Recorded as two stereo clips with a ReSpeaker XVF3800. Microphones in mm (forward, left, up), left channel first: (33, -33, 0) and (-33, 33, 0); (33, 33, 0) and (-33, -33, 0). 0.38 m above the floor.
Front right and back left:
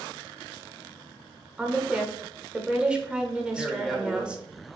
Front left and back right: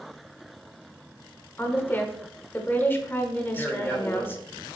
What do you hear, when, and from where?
1.6 s a woman speaking: 70° left, 0.8 m
3.5 s a man speaking: 50° left, 1.4 m